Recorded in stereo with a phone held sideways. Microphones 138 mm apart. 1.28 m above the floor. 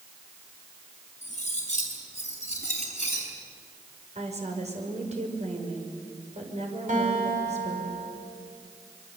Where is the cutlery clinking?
55° left (ahead or behind), 6 m.